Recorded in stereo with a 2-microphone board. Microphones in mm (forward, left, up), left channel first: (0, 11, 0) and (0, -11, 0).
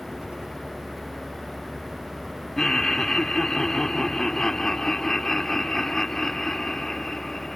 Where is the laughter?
20° left (ahead or behind).